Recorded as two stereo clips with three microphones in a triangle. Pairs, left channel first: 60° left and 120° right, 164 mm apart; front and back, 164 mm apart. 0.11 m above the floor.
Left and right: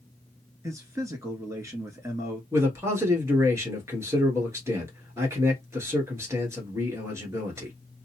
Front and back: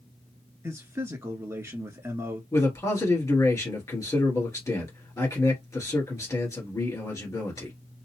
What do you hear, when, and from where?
0.6 s a man speaking: 145° right, 1.2 m
2.5 s a man speaking: 60° right, 1.7 m